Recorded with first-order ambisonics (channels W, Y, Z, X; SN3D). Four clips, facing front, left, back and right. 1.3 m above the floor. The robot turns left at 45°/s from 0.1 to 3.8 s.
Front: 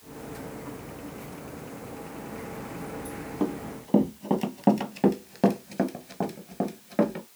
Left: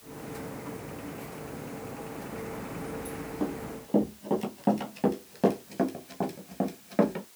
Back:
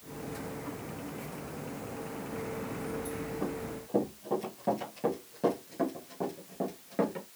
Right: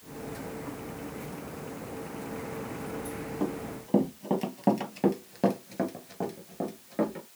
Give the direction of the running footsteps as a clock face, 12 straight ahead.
12 o'clock.